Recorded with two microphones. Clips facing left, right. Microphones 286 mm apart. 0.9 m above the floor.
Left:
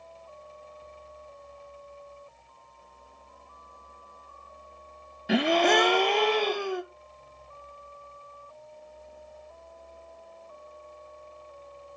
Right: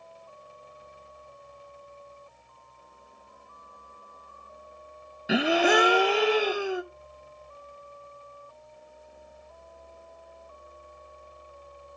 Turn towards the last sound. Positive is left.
turn(degrees=-5)  # may be behind; listen again after turning